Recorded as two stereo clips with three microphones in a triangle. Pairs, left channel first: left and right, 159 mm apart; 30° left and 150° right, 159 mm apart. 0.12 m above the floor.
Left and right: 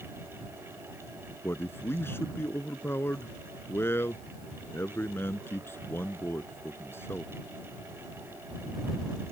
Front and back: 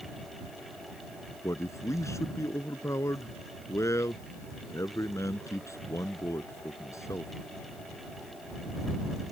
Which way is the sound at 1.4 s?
50° left.